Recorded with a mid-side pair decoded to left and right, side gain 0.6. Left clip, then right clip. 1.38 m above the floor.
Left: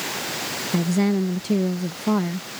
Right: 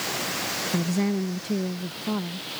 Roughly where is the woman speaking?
Ahead.